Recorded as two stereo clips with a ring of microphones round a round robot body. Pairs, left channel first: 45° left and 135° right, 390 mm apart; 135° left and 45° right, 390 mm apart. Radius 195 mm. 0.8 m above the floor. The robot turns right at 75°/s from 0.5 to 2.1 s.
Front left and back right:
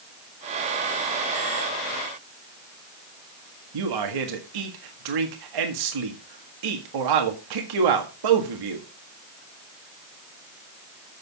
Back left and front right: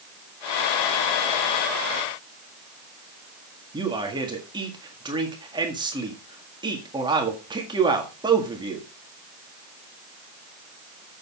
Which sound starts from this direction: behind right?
A man speaking, at 3.7 s.